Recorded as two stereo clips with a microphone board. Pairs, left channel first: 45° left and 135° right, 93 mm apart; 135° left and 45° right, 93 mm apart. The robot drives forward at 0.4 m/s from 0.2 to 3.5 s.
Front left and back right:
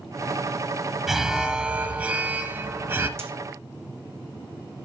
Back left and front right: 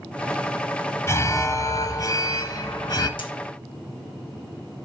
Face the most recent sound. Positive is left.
turn(degrees=165)